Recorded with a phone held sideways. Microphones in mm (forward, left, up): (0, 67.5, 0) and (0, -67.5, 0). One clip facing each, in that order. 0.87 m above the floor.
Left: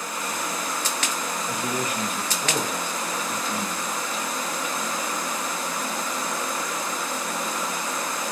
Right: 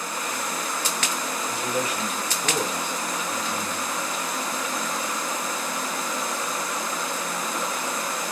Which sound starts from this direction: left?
A man speaking, at 1.5 s.